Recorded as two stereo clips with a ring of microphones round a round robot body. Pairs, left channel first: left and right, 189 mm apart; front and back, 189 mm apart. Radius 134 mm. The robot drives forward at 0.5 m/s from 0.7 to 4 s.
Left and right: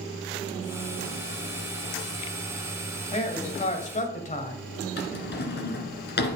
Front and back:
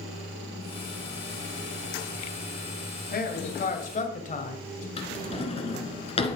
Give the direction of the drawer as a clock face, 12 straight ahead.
10 o'clock.